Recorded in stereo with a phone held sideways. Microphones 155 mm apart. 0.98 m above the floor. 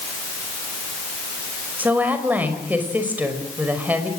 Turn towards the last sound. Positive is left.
turn(degrees=-10)  # may be behind; listen again after turning